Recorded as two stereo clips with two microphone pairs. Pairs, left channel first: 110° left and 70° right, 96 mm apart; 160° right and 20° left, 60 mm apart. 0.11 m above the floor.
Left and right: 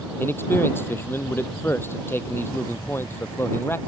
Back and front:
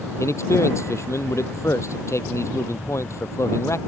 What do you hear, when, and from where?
0.2 s a man speaking: 175° left